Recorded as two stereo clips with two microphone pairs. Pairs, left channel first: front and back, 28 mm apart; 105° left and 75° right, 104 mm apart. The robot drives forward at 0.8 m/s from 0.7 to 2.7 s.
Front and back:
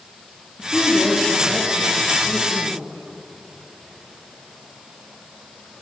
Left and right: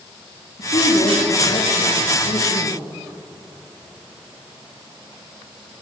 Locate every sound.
0.6 s a woman speaking: 100° left, 6.5 m; by 2.8 s 110° left, 6.5 m